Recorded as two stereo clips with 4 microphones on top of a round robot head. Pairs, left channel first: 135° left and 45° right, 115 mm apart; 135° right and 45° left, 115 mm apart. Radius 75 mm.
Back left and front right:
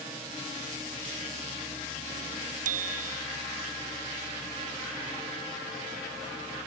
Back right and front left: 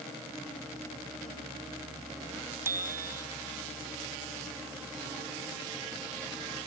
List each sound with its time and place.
2.6 s a bicycle bell: 25° right